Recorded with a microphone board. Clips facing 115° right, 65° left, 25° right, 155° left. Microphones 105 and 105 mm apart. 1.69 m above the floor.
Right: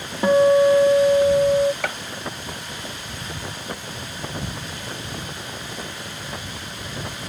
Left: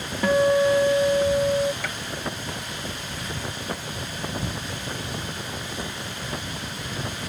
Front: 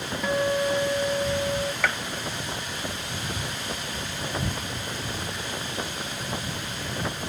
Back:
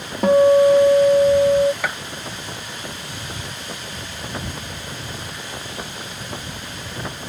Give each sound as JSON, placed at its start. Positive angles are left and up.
{"t": 0.2, "sound": "a guitar", "azimuth_deg": -175}
{"t": 1.8, "sound": "a gunshot", "azimuth_deg": -125}